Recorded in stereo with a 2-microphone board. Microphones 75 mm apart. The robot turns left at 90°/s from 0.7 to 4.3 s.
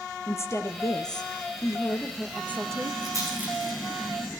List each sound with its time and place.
0.3 s a woman speaking: 135° left, 2.5 m; by 2.9 s 65° right, 2.5 m
3.0 s a rattle: 55° right (ahead or behind), 7 m; by 3.8 s 15° left (ahead or behind), 7 m